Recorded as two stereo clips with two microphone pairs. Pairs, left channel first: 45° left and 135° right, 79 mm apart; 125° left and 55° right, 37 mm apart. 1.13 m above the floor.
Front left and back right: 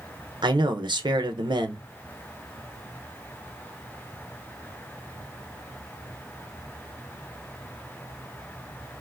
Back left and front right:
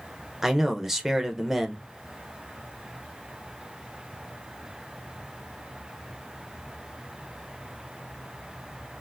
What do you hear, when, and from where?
0.4 s a man speaking: 135° right, 0.7 m